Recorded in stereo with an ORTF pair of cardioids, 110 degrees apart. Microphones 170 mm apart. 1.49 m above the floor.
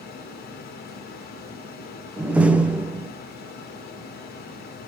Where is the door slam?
5° right, 0.7 m.